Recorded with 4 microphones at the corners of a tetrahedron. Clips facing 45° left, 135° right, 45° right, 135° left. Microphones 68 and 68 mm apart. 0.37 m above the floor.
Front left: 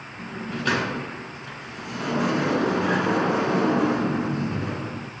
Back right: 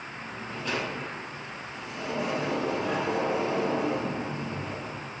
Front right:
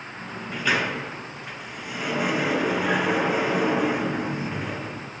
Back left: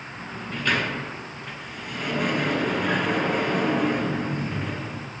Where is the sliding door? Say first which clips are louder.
Front left 10 dB, front right 1 dB; 40° left, 1.0 m.